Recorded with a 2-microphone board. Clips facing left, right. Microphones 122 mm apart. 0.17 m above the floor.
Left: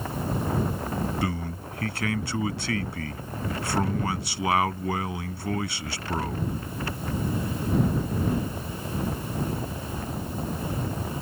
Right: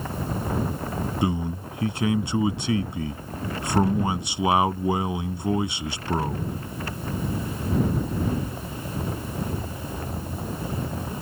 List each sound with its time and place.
1.2 s a man speaking: 20° right (ahead or behind)